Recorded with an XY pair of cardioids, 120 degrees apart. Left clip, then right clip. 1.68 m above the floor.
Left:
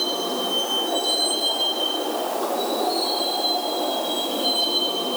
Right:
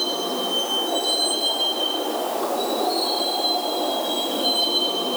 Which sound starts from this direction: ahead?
A vehicle, at 0.0 s.